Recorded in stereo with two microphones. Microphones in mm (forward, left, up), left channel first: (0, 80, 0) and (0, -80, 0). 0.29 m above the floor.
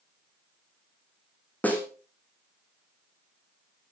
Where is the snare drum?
10° left (ahead or behind), 2.5 m.